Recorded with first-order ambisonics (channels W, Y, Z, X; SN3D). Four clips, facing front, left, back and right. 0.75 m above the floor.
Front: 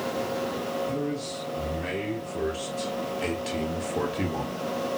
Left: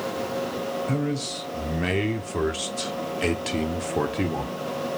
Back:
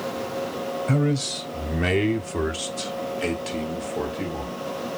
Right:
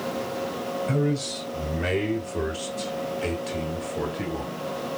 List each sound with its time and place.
0.9 s a man speaking: 175° left, 2.5 m; by 4.6 s 70° left, 2 m